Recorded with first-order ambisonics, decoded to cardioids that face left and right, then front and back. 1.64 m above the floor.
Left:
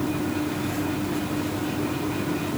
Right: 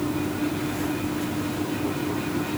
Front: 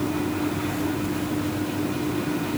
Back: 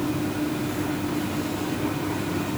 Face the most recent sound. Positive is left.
No sound to turn to.